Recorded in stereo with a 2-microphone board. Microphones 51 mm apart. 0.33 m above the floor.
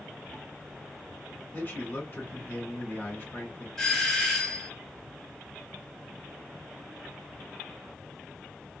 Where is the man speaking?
35° left (ahead or behind), 1.3 m.